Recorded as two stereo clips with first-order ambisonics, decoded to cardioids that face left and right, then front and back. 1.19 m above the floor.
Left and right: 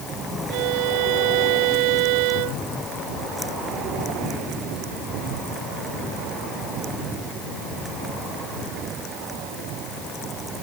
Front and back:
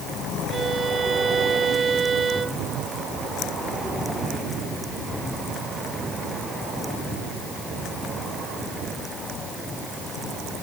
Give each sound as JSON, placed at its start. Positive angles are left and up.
{"t": 0.5, "sound": "a violin", "azimuth_deg": -105}